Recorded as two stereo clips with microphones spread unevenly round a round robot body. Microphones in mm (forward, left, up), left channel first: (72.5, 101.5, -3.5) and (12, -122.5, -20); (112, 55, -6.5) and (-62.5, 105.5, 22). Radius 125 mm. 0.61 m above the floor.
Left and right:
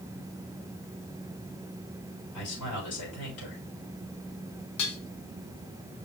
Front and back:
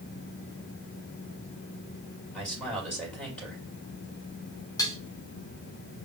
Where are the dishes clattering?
55° left, 3.5 m.